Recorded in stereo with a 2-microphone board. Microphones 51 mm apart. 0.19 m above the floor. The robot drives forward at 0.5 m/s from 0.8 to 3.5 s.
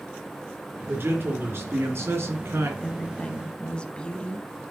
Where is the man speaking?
45° right (ahead or behind), 3 m; by 2.7 s 55° right (ahead or behind), 2.5 m.